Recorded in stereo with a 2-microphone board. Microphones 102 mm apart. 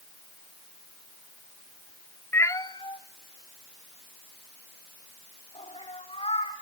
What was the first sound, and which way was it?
A cat meowing, 25° left (ahead or behind).